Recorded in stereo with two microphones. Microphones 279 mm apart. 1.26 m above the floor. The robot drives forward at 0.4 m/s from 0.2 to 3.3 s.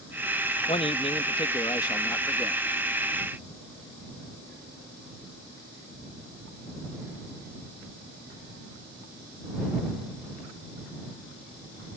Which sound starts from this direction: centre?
A man speaking, at 0.7 s.